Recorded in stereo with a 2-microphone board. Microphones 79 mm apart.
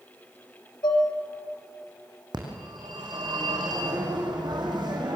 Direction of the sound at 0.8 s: 70° left (ahead or behind).